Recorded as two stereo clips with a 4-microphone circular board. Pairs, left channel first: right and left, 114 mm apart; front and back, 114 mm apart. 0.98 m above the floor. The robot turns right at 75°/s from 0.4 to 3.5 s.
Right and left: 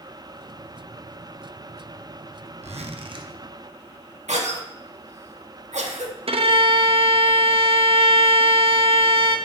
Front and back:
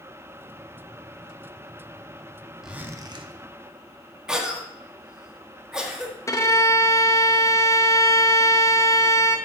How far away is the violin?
About 0.7 m.